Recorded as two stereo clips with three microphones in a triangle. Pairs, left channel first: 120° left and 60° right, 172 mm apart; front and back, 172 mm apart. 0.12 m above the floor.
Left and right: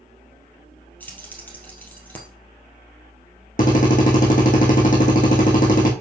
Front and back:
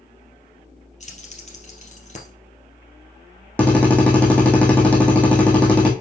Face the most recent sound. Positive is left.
turn(degrees=80)